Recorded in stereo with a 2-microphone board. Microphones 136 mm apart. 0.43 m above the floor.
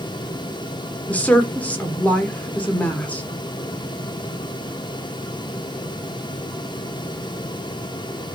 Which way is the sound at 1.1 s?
10° left (ahead or behind).